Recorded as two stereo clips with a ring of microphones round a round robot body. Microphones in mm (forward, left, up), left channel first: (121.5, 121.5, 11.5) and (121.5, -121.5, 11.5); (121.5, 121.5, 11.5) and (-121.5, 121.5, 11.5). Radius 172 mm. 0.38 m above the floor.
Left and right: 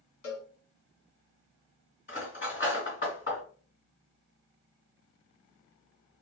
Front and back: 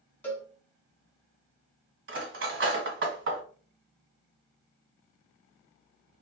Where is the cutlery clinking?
155° left, 1.7 m.